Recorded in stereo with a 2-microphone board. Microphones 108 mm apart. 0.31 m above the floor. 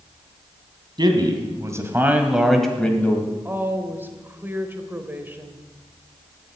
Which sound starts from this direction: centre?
A woman speaking, at 3.5 s.